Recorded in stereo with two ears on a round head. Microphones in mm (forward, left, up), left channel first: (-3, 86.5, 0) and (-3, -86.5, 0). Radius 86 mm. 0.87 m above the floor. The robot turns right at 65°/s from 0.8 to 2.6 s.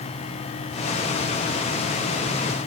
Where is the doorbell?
I don't hear a doorbell.